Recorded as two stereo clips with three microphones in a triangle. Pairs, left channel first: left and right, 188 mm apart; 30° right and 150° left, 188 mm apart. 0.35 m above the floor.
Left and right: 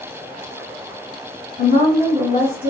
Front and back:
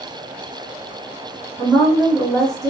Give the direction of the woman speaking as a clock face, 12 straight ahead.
10 o'clock.